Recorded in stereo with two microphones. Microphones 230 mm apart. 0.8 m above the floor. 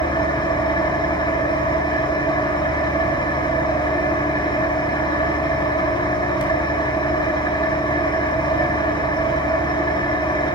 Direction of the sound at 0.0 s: 20° left (ahead or behind).